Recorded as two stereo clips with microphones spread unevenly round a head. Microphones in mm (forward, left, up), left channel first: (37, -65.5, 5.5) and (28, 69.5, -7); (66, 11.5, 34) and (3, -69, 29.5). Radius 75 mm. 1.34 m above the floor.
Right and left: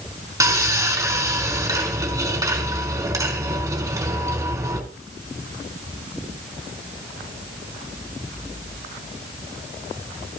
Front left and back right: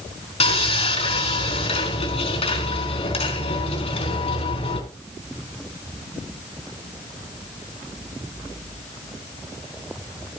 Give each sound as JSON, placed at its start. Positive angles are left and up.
{"t": 0.4, "sound": "sawing", "azimuth_deg": 25, "distance_m": 5.0}